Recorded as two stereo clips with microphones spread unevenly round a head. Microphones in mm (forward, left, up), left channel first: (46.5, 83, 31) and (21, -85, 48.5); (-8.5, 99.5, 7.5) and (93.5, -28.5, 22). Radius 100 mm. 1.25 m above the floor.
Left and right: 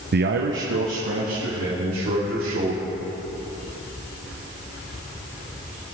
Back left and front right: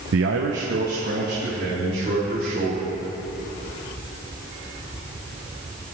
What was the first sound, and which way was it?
A man speaking, 65° right.